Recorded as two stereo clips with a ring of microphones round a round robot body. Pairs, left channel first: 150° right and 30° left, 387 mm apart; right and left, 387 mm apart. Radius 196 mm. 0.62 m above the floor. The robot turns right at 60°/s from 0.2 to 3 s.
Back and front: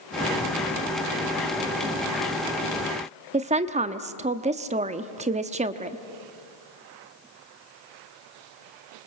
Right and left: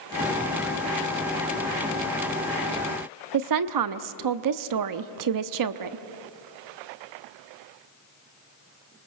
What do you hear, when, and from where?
3.3 s a woman speaking: 100° left, 0.9 m